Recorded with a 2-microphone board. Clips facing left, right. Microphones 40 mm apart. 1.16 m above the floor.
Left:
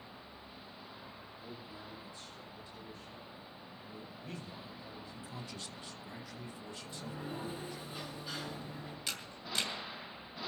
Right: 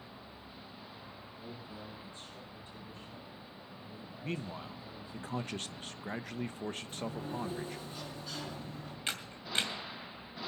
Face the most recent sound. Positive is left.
turn(degrees=-35)  # may be behind; listen again after turning